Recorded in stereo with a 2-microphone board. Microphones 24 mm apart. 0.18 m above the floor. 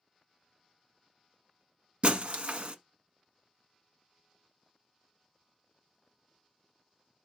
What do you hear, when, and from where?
2.0 s breaking glass: 50° right (ahead or behind), 0.9 m